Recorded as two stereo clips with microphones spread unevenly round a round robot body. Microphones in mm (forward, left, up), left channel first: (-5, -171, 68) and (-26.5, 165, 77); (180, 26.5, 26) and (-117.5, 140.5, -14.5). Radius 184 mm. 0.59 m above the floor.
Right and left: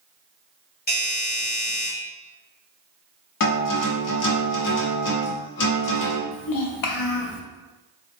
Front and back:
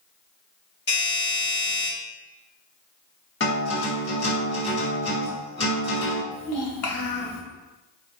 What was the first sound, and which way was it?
A doorbell, 65° right.